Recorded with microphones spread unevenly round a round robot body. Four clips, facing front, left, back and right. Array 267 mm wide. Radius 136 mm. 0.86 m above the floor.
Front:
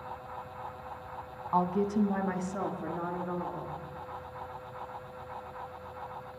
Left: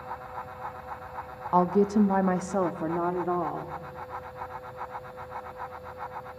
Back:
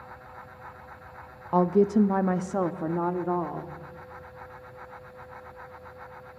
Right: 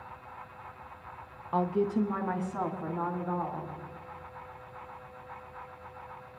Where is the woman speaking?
160° left, 0.7 m; by 3.7 s 135° left, 2.5 m.